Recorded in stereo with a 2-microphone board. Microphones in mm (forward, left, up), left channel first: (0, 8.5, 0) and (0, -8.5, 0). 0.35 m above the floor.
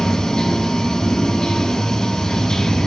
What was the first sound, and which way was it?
Running water, 50° left (ahead or behind).